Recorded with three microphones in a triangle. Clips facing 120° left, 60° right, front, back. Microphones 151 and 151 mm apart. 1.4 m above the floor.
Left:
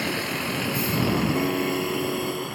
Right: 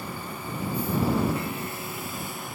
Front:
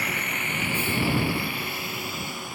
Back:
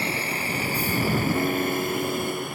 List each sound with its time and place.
0.0 s a vehicle: 120° left; by 2.5 s 145° left
1.4 s a piano: 150° left